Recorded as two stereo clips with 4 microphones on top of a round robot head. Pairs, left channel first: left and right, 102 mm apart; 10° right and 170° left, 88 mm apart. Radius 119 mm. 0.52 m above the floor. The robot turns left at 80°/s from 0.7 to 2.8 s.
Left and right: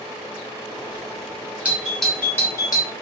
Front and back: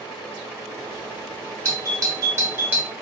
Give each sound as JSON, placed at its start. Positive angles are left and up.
{"t": 1.6, "sound": "a doorbell", "azimuth_deg": -160, "distance_m": 1.3}